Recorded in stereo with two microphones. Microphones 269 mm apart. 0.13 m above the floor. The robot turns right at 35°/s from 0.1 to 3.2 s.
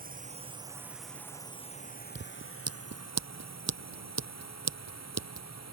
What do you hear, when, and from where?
0.0 s a drone: 30° right (ahead or behind); by 5.7 s 70° left (ahead or behind)
2.1 s scissors: 45° right (ahead or behind); by 5.5 s 75° right (ahead or behind)